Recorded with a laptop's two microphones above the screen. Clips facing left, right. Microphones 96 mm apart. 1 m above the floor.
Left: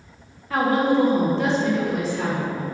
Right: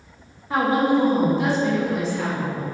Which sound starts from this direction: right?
A woman speaking, at 0.5 s.